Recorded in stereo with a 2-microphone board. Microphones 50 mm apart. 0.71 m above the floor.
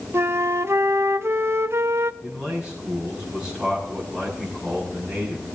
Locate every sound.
0.1 s a flute: 55° right (ahead or behind), 0.5 m
2.2 s a man speaking: 10° right (ahead or behind), 6.5 m